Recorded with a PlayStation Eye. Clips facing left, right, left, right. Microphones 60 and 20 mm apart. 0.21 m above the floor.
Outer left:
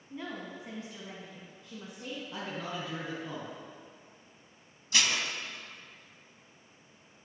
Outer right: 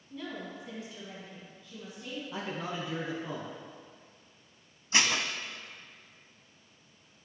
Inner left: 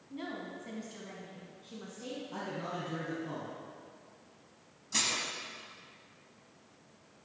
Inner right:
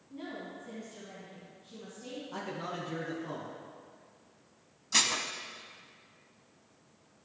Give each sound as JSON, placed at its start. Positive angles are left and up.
{"t": 0.1, "sound": "a woman speaking", "side_deg": 25, "distance_m": 1.7}
{"t": 2.3, "sound": "a man speaking", "side_deg": -15, "distance_m": 1.9}
{"t": 4.9, "sound": "dishes clattering", "side_deg": -30, "distance_m": 0.8}